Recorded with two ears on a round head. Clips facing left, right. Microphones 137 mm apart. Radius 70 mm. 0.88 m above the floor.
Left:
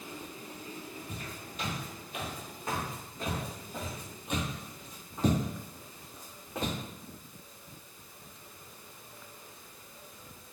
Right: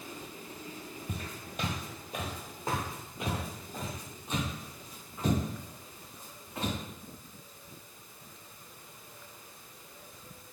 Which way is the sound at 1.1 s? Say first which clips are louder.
Right 2 dB; 55° right (ahead or behind).